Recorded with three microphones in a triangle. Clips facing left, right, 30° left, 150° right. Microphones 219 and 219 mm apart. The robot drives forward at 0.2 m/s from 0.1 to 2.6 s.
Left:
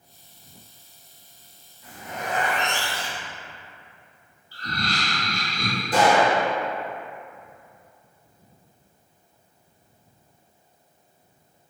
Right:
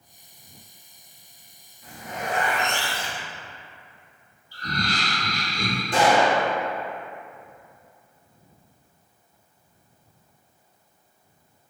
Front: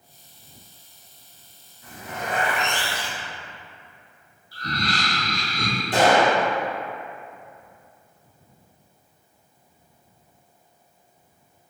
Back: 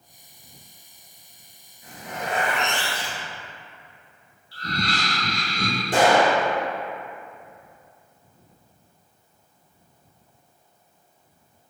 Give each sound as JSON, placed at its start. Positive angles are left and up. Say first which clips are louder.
{"t": 1.8, "sound": "a zipper", "louder": "right 1 dB, even", "azimuth_deg": -145, "distance_m": 0.7}
{"t": 4.5, "sound": "laughter", "louder": "right 1 dB, even", "azimuth_deg": -150, "distance_m": 1.0}
{"t": 5.9, "sound": "a gunshot", "louder": "left 1 dB, even", "azimuth_deg": 175, "distance_m": 1.4}